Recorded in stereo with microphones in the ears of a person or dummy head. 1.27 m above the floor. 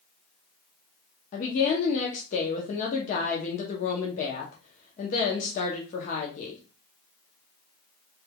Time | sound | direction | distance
1.3 | a woman speaking | 45° left (ahead or behind) | 0.6 m